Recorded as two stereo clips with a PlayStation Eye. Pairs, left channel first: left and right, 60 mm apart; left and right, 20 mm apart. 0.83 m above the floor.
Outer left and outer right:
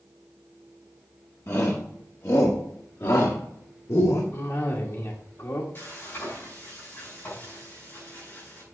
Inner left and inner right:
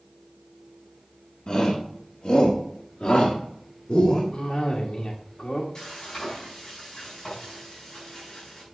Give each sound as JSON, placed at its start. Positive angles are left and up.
{"t": 1.5, "sound": "a shout", "side_deg": 45, "distance_m": 1.6}
{"t": 4.3, "sound": "a cough", "side_deg": 60, "distance_m": 1.7}
{"t": 5.8, "sound": "frying", "side_deg": 40, "distance_m": 5.5}